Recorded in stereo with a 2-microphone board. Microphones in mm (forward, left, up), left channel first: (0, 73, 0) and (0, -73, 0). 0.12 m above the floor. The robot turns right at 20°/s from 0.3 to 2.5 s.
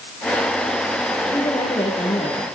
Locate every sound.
1.3 s a woman speaking: 30° left (ahead or behind), 2 m; by 2.5 s 45° left (ahead or behind), 2 m